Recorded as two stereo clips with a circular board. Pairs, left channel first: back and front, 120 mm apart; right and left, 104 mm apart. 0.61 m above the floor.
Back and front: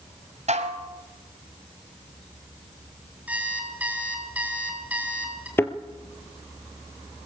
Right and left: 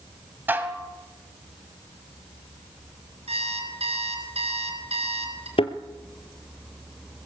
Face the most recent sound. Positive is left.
turn(degrees=-110)